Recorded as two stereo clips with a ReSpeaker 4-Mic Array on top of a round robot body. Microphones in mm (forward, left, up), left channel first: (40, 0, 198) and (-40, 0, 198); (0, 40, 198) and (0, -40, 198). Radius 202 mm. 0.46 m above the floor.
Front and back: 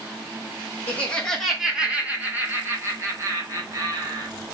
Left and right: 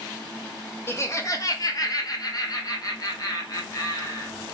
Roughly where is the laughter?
Ahead left.